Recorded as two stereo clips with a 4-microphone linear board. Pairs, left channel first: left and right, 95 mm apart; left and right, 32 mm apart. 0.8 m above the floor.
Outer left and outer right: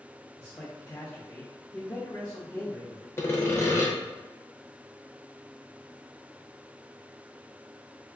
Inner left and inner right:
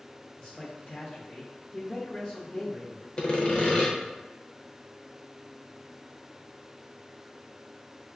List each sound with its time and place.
0.4 s a man speaking: 30° left (ahead or behind), 0.8 m
3.2 s sawing: 25° left (ahead or behind), 0.5 m